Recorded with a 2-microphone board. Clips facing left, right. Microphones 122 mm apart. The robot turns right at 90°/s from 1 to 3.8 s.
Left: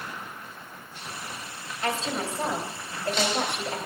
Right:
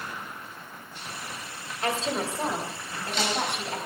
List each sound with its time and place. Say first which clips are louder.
1.8 s a woman speaking: right 1 dB; 60° right, 3 m; by 3.9 s 120° left, 3 m